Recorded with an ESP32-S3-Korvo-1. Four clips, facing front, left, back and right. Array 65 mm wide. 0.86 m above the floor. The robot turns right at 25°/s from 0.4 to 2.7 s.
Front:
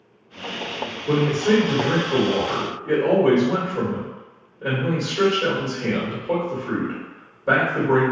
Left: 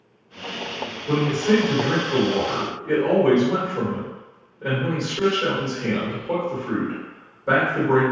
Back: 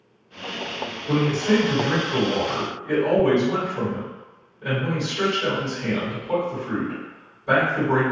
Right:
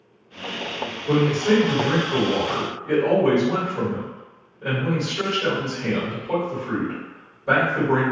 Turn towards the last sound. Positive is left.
turn(degrees=25)